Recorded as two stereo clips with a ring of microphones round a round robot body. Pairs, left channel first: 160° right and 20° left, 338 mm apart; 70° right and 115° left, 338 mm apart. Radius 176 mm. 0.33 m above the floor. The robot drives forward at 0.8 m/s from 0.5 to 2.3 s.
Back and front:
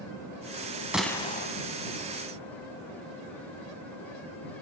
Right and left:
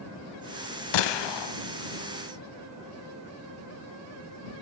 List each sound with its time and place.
0.9 s a gunshot: 65° right, 0.8 m; by 1.5 s 100° right, 0.7 m